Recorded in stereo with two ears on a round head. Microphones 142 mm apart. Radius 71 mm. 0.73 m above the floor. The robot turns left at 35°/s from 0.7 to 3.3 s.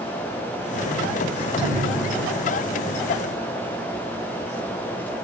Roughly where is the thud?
Right.